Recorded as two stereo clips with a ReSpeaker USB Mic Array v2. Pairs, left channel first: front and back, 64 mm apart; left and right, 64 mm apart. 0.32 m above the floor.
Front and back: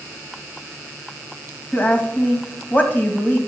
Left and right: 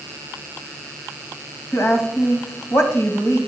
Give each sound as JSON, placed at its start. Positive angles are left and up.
{"t": 1.7, "sound": "a woman speaking", "azimuth_deg": 55, "distance_m": 2.0}